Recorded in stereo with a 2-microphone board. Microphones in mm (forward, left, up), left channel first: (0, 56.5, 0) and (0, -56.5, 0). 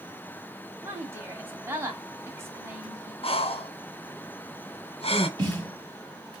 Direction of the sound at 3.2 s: 60° left (ahead or behind).